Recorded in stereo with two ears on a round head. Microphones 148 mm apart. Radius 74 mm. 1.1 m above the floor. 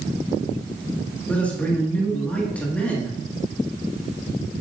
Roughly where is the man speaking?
Centre.